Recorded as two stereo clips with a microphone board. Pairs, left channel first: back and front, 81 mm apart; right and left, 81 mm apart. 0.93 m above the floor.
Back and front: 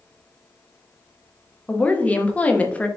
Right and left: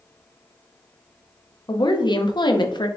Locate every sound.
1.7 s a woman speaking: 110° right, 0.8 m